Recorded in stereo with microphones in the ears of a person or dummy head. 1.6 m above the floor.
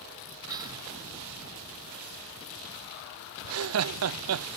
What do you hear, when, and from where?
0.5 s whispering: 25° right (ahead or behind)
3.4 s laughter: 75° right (ahead or behind)